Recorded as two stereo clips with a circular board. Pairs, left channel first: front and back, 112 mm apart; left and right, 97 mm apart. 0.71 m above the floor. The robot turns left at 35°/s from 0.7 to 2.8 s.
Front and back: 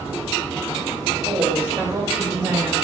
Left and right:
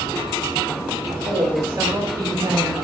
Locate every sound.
1.1 s a woman speaking: 110° right, 1.4 m; by 2.7 s 170° right, 1.4 m